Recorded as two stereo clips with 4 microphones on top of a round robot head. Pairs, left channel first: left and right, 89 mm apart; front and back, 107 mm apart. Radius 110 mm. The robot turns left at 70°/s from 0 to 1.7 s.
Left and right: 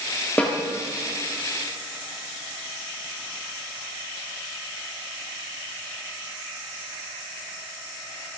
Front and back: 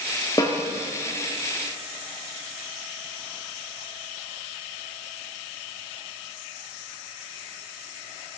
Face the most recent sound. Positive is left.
turn(degrees=-65)